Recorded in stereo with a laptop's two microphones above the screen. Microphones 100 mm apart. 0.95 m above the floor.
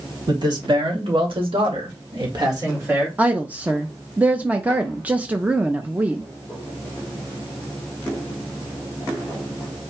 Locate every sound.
0.3 s a man speaking: 50° right (ahead or behind), 3.5 m; by 3.1 s 20° right (ahead or behind), 2 m
3.2 s a woman speaking: 15° right (ahead or behind), 0.7 m